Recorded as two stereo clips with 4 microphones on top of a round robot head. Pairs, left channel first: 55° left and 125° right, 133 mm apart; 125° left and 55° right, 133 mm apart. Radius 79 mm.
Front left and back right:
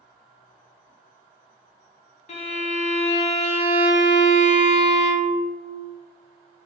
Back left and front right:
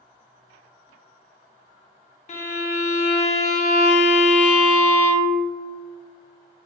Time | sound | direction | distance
2.3 | a violin | 90° left | 0.6 m